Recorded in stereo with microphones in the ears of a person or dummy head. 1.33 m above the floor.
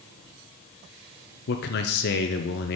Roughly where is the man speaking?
Left.